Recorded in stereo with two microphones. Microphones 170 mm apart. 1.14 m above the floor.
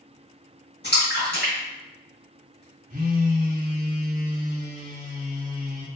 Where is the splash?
70° left (ahead or behind), 1.6 m.